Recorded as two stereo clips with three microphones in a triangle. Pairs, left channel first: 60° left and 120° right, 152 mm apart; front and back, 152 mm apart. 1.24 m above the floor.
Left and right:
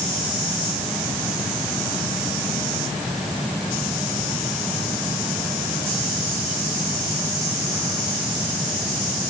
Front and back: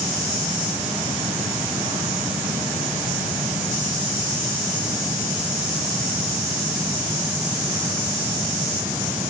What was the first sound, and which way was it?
Only background noise.